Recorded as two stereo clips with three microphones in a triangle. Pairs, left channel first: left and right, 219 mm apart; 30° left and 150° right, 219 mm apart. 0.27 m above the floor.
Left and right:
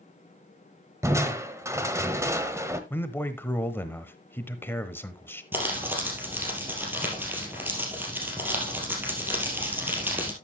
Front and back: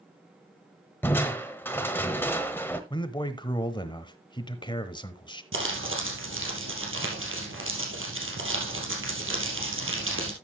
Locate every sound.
1.0 s crushing: 35° right, 1.1 m
2.9 s a man speaking: 30° left, 0.9 m
5.5 s crumpling: 170° right, 3 m